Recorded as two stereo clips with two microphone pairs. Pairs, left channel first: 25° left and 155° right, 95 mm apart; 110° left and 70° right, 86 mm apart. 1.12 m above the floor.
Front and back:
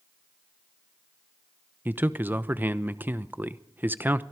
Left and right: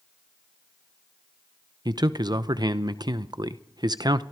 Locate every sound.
1.9 s a man speaking: 85° right, 0.8 m